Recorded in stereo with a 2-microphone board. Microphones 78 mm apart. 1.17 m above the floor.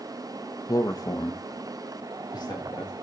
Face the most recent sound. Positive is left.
turn(degrees=65)  # may be behind; listen again after turning